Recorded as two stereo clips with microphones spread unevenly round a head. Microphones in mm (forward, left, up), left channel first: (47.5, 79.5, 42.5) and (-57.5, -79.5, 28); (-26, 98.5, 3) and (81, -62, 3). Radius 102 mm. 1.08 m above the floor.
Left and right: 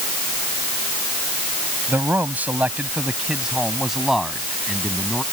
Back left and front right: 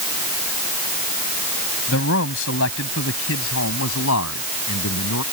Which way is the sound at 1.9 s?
155° left.